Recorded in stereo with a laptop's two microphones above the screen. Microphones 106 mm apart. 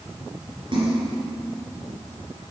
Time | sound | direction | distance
0.7 | a splash | 50° right (ahead or behind) | 3 m